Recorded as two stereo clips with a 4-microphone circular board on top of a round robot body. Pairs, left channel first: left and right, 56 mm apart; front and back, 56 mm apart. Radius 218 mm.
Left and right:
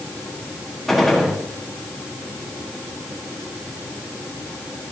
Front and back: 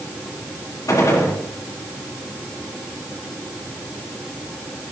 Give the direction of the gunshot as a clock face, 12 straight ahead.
12 o'clock.